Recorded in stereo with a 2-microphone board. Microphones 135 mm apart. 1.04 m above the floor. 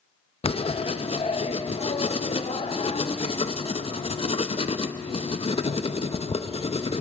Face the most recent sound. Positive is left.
turn(degrees=45)  # may be behind; listen again after turning